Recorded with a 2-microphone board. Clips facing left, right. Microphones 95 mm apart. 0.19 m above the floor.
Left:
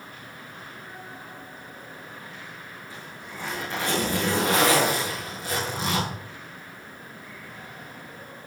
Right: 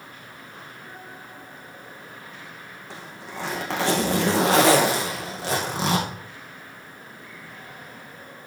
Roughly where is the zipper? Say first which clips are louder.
Right 6 dB; right.